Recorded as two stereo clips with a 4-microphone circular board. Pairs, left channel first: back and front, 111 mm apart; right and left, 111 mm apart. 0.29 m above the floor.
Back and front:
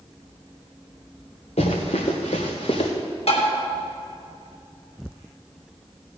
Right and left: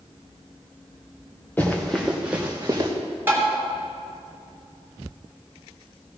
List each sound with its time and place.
1.6 s running footsteps: 165° right, 2.5 m; by 2.9 s 150° left, 2.5 m
3.3 s tapping: 160° left, 3 m